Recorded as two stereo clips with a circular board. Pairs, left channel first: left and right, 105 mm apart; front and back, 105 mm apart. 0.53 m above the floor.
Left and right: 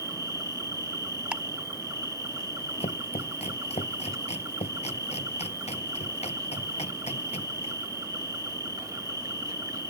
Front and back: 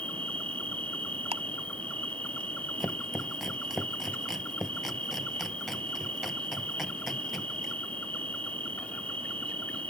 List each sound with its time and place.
0.0 s an insect: 65° right
1.3 s ticking: 170° right
2.8 s chopping: 90° left